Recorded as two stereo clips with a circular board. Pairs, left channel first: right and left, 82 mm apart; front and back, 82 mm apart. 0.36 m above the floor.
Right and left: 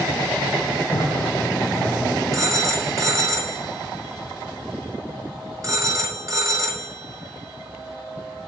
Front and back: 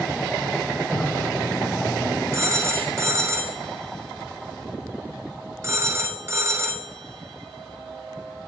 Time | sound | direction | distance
0.9 | laughter | 75° right | 3 m
2.3 | a phone ringing | 130° left | 0.8 m